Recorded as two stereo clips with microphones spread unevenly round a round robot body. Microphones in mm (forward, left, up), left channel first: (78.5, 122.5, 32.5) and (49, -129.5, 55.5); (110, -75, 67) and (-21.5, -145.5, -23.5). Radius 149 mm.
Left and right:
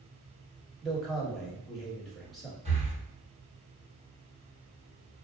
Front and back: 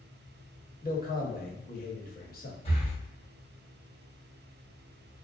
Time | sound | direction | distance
0.8 | a man speaking | 5° right | 1.3 m
2.6 | breathing | 30° right | 1.6 m